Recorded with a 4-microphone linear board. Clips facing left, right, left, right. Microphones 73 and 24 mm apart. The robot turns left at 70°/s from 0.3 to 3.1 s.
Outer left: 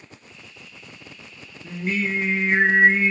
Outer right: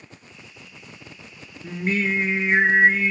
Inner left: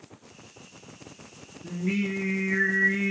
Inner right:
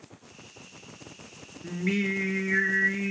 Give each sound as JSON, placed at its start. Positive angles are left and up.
{"t": 1.6, "sound": "singing", "azimuth_deg": -105, "distance_m": 1.2}